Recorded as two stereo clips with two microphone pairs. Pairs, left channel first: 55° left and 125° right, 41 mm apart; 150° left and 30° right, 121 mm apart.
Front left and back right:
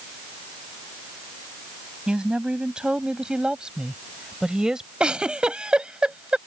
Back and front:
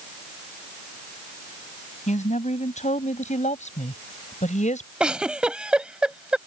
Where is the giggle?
100° right.